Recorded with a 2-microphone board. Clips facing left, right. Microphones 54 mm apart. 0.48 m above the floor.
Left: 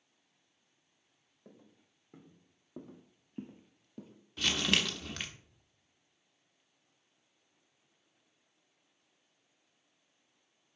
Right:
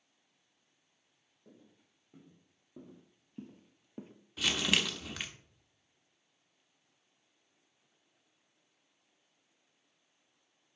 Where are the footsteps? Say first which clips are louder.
Left 2 dB; 65° left (ahead or behind), 2.5 m; by 4.1 s 45° right (ahead or behind), 0.6 m.